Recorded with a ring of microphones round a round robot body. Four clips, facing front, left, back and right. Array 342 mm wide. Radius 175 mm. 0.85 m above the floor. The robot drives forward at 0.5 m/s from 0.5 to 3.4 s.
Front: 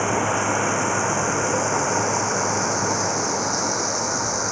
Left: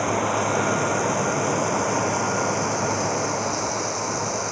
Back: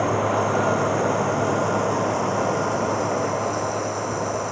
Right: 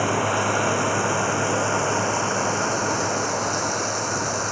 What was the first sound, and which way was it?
Running water, 10° right.